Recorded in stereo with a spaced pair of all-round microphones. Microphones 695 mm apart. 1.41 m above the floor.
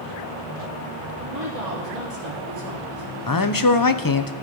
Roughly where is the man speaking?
Left.